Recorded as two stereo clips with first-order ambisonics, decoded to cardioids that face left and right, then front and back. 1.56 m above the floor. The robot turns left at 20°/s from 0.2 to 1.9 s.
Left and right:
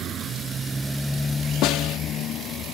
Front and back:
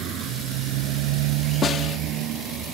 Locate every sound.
0.0 s a motorcycle: 140° right; by 2.7 s 135° left
1.6 s a snare drum: 60° left; by 2.0 s 55° left